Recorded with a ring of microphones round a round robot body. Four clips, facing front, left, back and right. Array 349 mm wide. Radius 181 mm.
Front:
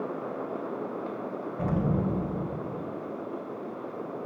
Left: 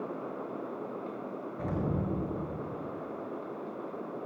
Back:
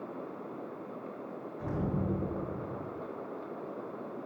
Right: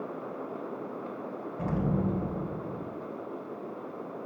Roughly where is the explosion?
Ahead.